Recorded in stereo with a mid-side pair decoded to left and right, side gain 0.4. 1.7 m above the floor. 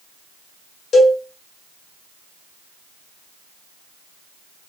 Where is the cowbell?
65° left, 1.1 m.